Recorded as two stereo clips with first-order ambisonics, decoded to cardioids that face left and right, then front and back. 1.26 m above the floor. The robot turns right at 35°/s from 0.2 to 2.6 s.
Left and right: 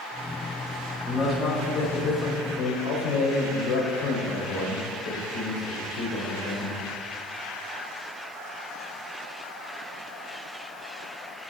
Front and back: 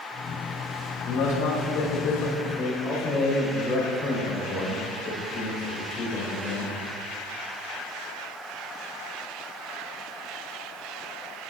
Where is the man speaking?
10° left, 4.5 m; by 6.7 s 65° left, 4.5 m.